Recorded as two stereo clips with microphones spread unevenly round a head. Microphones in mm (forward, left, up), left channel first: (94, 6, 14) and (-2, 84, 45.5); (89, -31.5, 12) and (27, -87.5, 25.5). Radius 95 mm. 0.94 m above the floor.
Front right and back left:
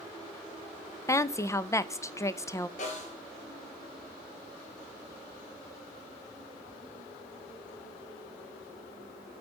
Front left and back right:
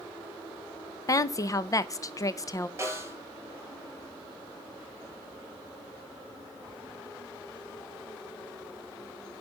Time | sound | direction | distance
1.1 | a woman speaking | 10° left | 0.7 m
2.8 | a snare drum | 80° right | 4.5 m